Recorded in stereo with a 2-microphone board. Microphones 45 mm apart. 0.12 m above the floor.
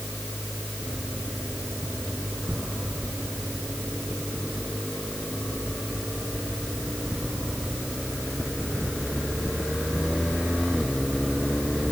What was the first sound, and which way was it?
Only background noise.